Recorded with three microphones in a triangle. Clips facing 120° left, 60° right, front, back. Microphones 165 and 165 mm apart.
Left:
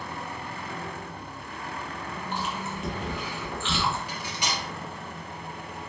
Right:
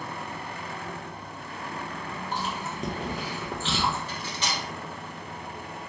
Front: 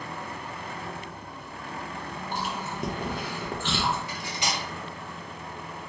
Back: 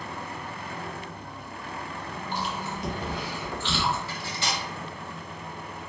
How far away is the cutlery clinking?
About 0.8 m.